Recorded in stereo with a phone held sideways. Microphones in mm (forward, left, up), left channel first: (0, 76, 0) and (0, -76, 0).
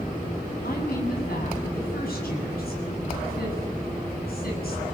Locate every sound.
0.6 s a woman speaking: 85° left, 7.5 m